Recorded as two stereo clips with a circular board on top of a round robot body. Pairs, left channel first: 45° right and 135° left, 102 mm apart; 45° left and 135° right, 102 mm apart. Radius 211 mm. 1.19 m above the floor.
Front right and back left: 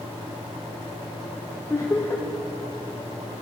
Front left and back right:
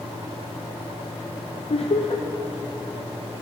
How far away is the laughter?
About 0.7 m.